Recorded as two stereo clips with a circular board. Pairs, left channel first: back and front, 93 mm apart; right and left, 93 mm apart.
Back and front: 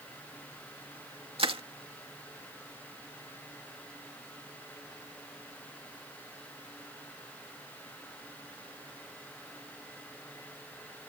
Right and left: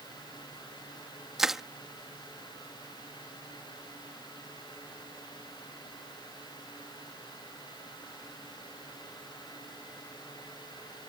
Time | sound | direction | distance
1.4 | crushing | 5° left | ?